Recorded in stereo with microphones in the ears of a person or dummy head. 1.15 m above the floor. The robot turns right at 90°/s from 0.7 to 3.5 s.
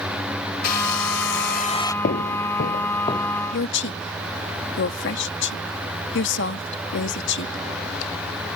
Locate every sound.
0.6 s a hair dryer: 50° left; by 1.9 s 165° left
2.0 s footsteps: 40° left (ahead or behind); by 3.4 s 10° left (ahead or behind)
3.5 s a woman speaking: 65° left (ahead or behind)